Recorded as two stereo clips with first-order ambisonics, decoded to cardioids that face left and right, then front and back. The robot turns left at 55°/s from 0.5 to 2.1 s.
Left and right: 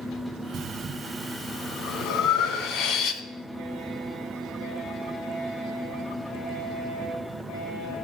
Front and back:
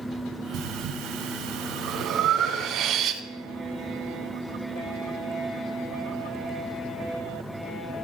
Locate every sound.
0.5 s breathing: 145° right, 0.8 m; by 3.2 s 130° left, 0.8 m